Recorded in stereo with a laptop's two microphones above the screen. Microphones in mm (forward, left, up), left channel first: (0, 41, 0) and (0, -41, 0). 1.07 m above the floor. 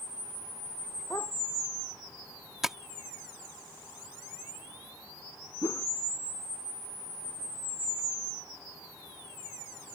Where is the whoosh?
40° left (ahead or behind).